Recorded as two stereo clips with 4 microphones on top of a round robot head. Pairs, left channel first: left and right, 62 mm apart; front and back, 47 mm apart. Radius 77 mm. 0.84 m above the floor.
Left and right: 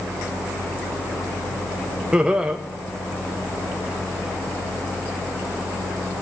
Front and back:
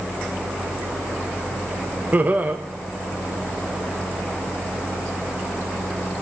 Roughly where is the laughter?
Behind.